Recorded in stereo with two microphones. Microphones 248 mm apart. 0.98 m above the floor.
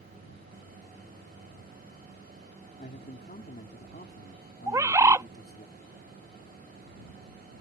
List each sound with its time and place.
2.8 s a man speaking: 40° left (ahead or behind)
4.7 s a bird: 15° right (ahead or behind)